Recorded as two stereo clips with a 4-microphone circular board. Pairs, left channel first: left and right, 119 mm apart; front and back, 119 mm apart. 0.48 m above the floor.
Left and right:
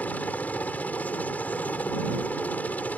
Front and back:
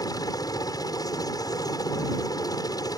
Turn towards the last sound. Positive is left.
turn(degrees=25)